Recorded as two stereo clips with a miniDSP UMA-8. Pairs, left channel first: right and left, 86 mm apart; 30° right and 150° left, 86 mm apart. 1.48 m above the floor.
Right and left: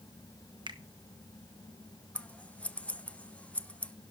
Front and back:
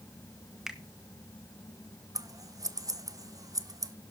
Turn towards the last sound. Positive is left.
turn(degrees=-165)